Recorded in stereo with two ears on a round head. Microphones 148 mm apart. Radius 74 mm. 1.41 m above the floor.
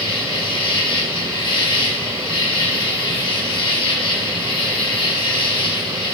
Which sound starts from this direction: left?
An insect, at 0.0 s.